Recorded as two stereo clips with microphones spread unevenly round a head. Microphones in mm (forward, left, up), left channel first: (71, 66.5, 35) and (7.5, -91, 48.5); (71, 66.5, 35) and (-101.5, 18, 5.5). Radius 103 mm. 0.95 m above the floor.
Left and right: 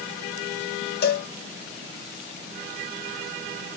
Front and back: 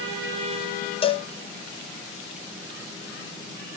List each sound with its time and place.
1.0 s a cowbell: 80° left, 1.0 m